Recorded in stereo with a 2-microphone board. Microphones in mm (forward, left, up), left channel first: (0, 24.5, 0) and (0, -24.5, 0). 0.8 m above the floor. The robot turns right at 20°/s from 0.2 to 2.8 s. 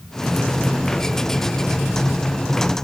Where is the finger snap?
I don't hear a finger snap.